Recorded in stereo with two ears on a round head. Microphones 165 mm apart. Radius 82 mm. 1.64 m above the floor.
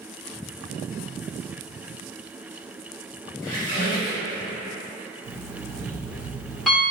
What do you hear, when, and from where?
3.4 s a squeak: 50° left (ahead or behind), 1.1 m
5.2 s an alarm clock: centre (ahead or behind), 1.9 m